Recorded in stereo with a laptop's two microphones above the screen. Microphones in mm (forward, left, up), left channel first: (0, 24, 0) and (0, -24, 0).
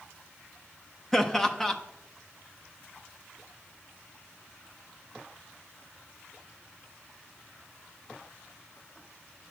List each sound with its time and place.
1.1 s laughter: 10° left (ahead or behind), 0.7 m